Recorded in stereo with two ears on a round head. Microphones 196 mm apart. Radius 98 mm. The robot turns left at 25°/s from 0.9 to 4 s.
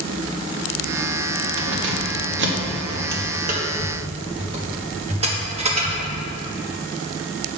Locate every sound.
1.6 s keys jangling: 60° right (ahead or behind), 1.1 m; by 6.0 s 30° right (ahead or behind), 1.1 m